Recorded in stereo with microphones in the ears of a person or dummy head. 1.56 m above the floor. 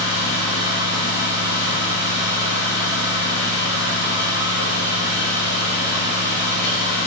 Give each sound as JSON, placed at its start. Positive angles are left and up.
{"t": 0.0, "sound": "a fan", "side_deg": 60, "distance_m": 1.8}